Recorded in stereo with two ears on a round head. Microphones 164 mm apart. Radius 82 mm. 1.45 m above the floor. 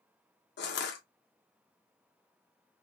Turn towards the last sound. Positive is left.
turn(degrees=60)  # may be behind; listen again after turning